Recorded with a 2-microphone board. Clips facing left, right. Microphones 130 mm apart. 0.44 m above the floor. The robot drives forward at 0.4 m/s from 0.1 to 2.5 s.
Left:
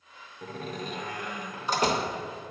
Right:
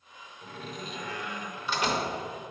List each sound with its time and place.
0.4 s a door slam: 45° left (ahead or behind), 0.6 m; by 2.1 s 35° left (ahead or behind), 0.8 m